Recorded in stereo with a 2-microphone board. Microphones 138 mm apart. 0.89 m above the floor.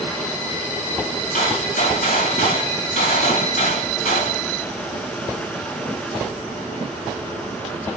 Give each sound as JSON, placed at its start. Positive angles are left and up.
{"t": 1.3, "sound": "a gunshot", "side_deg": 70, "distance_m": 2.0}